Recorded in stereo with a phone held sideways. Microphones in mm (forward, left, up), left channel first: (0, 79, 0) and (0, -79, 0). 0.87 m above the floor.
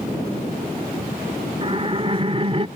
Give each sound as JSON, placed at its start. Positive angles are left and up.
{"t": 1.6, "sound": "laughter", "side_deg": -35}